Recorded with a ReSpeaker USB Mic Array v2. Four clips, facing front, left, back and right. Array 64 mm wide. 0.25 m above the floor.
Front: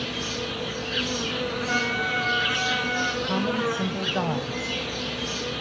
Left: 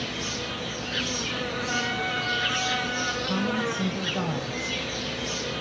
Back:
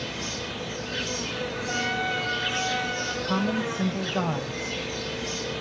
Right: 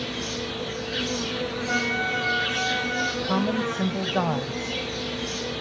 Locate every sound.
0.0 s an insect: 15° left, 5 m
1.7 s a trumpet: 35° right, 5 m
3.2 s a woman speaking: 80° right, 1.3 m